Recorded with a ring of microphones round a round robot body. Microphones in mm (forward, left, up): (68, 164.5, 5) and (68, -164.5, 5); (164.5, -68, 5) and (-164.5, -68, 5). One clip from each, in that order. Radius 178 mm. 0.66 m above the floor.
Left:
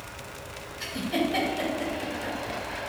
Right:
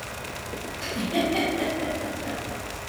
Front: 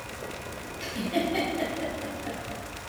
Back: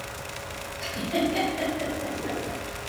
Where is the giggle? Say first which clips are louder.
Right 2 dB, back 2 dB; 100° left, 1.7 m.